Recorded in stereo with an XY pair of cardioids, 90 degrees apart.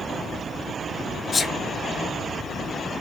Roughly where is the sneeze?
Ahead left.